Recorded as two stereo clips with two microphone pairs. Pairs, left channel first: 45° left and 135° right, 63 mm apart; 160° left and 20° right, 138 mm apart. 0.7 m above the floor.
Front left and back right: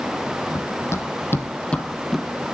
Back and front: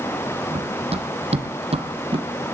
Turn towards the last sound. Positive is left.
turn(degrees=-50)